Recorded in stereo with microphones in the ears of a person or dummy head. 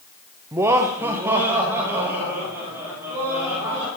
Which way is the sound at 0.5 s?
15° right (ahead or behind).